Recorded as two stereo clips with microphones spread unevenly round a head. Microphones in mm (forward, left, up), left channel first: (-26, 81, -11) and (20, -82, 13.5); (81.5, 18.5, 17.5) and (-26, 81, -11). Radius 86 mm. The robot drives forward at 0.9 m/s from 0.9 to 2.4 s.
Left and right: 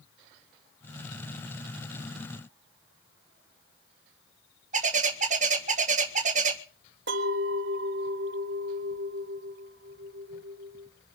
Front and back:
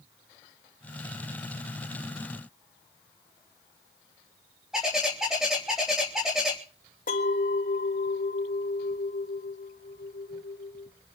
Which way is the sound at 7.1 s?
55° right.